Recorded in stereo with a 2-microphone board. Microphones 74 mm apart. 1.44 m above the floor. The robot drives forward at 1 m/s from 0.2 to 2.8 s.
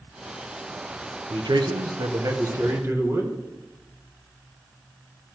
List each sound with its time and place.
1.3 s a man speaking: 70° right (ahead or behind), 0.9 m; by 3.4 s 35° right (ahead or behind), 1.5 m